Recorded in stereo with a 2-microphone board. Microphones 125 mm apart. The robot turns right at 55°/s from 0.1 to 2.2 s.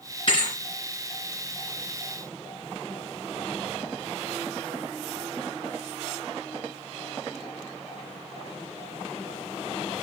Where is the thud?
40° left (ahead or behind), 3 m; by 0.6 s 25° left (ahead or behind), 3 m.